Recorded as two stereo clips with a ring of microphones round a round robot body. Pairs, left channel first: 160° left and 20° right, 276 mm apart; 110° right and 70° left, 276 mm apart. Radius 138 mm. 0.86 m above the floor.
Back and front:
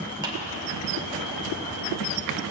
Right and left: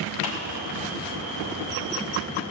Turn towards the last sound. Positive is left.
turn(degrees=-100)